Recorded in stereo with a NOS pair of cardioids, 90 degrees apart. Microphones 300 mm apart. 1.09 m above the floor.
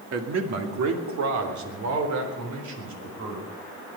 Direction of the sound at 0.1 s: 55° right.